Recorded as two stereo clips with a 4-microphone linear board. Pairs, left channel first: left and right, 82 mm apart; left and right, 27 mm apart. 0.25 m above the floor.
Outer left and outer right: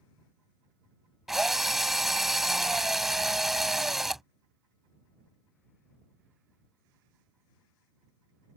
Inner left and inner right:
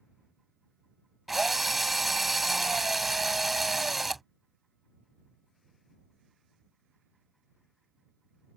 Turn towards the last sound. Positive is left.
turn(degrees=-5)  # may be behind; listen again after turning